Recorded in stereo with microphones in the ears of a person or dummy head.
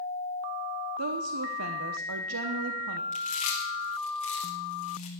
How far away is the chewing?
About 2 m.